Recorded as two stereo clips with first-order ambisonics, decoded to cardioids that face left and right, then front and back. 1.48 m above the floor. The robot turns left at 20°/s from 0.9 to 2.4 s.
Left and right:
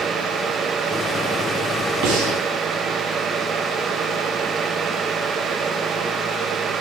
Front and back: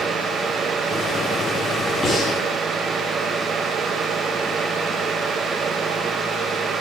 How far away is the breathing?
About 3 m.